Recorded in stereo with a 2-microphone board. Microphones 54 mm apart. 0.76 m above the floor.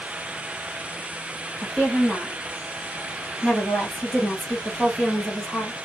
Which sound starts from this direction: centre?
A woman speaking, at 1.6 s.